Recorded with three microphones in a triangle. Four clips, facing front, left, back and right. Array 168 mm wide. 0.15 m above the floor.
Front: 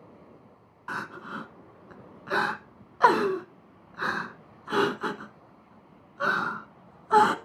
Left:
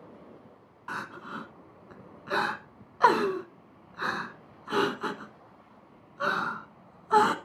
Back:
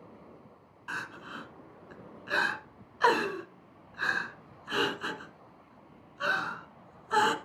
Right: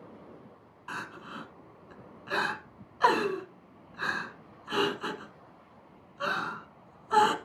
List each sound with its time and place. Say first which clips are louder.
0.9 s crying: left 3 dB, front 4 dB; 30° left, 1.0 m